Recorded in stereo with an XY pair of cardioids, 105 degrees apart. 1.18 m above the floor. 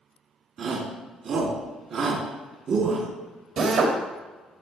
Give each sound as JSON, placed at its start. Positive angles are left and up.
{"t": 0.6, "sound": "a shout", "azimuth_deg": -60, "distance_m": 3.0}
{"t": 3.6, "sound": "a drill", "azimuth_deg": -70, "distance_m": 2.5}